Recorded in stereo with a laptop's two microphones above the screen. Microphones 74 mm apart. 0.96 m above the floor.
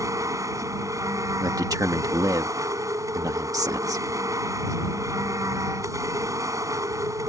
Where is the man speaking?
50° right (ahead or behind).